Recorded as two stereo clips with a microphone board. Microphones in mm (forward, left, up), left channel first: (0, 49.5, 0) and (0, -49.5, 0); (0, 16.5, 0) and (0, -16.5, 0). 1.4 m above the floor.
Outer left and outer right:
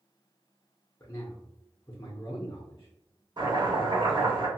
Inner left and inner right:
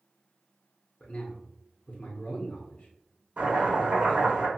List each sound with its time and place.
1.0 s a man speaking: 35° left (ahead or behind), 0.7 m
3.4 s chopping: 45° right (ahead or behind), 1.3 m